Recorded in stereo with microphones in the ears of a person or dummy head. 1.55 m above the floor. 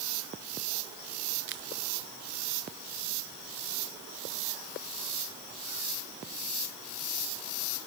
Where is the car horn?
I don't hear a car horn.